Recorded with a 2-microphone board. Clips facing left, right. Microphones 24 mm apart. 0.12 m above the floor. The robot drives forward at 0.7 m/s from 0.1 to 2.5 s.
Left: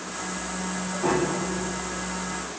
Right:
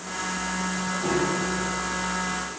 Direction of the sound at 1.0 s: 35° left (ahead or behind).